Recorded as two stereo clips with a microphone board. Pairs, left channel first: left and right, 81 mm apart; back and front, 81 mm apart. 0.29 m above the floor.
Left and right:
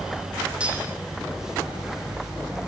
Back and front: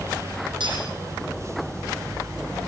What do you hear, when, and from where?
0.6 s cutlery clinking: 15° right, 8.5 m